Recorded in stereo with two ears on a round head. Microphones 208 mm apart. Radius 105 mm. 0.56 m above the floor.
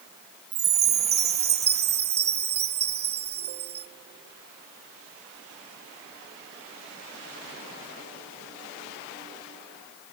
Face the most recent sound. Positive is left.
turn(degrees=-45)  # may be behind; listen again after turning